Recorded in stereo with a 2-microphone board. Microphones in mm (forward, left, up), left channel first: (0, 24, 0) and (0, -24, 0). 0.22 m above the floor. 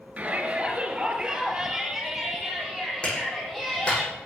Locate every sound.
0.2 s a shout: 30° right (ahead or behind), 3.5 m; by 4.0 s 10° left (ahead or behind), 8 m
3.0 s a clap: 25° left (ahead or behind), 10 m